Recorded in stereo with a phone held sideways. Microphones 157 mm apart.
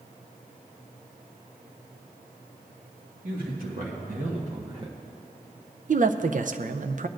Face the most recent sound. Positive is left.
turn(degrees=-55)  # may be behind; listen again after turning